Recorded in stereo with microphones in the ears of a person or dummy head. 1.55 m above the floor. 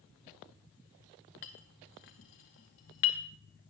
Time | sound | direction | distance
1.4 | a clink | 25° left (ahead or behind) | 0.6 m